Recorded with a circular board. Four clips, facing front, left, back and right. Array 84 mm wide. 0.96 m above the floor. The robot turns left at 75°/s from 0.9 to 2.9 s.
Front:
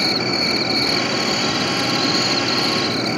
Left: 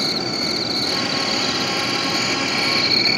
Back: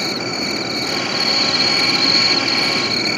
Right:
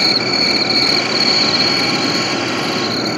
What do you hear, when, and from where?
0.0 s an insect: 80° right; by 3.2 s 130° left